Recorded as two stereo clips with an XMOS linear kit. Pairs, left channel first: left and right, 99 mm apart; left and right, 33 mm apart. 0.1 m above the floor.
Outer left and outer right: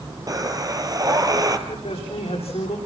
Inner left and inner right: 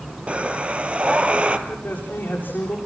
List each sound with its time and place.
0.3 s breathing: 40° right (ahead or behind), 2 m
1.7 s a man speaking: 80° left, 9.5 m